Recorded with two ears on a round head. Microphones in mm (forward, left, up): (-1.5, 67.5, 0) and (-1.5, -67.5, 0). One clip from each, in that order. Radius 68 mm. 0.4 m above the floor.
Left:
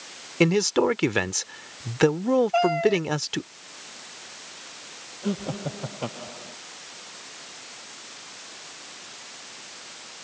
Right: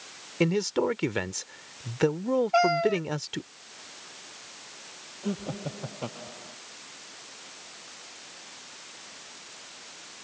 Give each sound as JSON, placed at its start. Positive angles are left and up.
{"t": 0.4, "sound": "a man speaking", "side_deg": 20}
{"t": 2.5, "sound": "a cat meowing", "side_deg": -30}
{"t": 5.2, "sound": "laughter", "side_deg": 5}